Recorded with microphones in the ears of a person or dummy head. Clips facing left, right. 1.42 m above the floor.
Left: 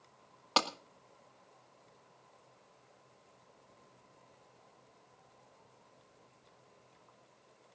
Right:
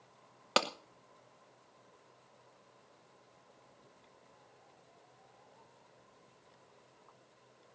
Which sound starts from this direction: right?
A clap, at 0.6 s.